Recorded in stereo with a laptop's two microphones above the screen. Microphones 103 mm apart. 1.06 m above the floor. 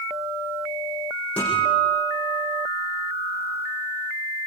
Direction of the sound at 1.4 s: 15° left (ahead or behind).